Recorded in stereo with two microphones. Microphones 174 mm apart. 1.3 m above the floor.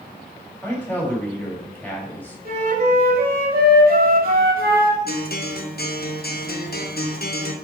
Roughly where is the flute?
Right.